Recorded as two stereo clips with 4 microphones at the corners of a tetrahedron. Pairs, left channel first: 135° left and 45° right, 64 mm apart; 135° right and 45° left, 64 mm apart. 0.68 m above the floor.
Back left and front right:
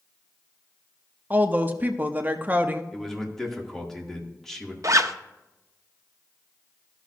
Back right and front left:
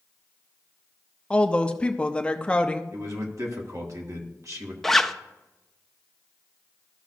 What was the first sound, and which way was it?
A woman speaking, 80° right.